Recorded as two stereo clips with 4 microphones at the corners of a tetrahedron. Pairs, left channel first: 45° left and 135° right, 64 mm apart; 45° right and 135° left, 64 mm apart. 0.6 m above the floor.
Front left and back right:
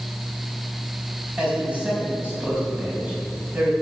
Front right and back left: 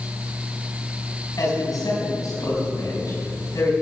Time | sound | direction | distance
1.4 | a man speaking | 65° right | 5 m